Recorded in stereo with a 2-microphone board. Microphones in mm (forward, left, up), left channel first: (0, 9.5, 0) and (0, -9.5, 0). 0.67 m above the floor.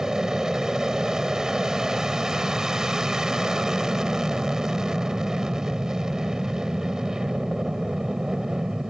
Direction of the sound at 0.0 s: 40° right (ahead or behind).